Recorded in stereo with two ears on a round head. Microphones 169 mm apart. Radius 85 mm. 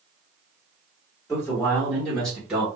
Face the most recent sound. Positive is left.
turn(degrees=-5)  # may be behind; listen again after turning